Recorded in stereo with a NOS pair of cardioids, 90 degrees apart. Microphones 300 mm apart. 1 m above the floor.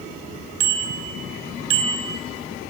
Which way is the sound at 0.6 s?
60° right.